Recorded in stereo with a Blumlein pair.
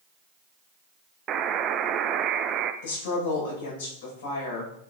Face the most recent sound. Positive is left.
turn(degrees=55)